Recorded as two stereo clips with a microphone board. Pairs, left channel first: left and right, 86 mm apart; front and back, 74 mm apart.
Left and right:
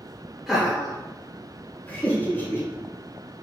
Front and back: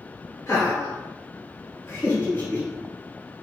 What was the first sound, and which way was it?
Laughter, 5° right.